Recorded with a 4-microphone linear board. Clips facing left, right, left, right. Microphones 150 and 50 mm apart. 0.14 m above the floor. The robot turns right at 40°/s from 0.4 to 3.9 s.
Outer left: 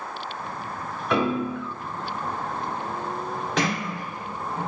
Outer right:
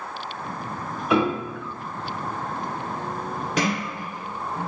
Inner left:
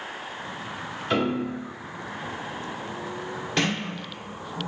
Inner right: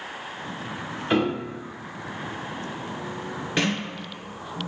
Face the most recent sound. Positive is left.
turn(degrees=-20)  # may be behind; listen again after turning